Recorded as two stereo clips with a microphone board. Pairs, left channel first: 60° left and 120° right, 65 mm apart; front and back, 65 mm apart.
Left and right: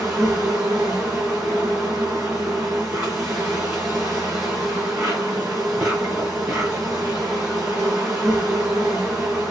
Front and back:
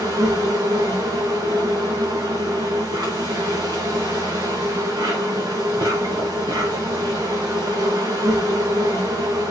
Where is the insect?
Straight behind, 4 m.